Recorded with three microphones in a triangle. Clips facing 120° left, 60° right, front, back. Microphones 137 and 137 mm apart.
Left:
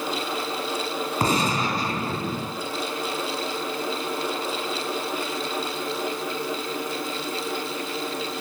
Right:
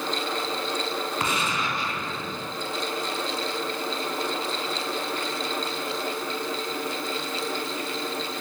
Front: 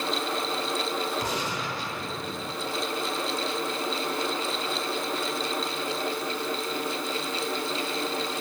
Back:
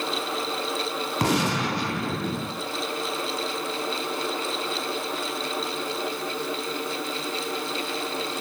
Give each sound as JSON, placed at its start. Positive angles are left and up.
{"t": 1.2, "sound": "a gunshot", "azimuth_deg": 175, "distance_m": 0.9}